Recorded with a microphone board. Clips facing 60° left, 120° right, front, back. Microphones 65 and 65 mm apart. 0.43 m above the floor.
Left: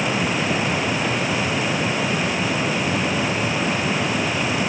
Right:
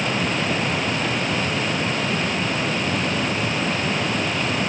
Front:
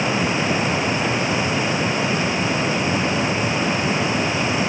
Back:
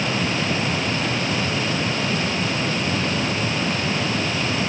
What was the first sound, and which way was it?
Only background noise.